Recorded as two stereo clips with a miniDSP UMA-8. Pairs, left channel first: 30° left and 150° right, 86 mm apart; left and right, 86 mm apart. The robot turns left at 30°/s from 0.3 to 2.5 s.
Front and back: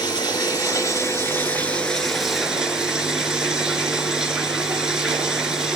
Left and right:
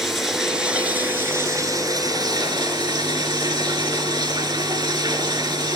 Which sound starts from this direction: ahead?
Running water, at 0.0 s.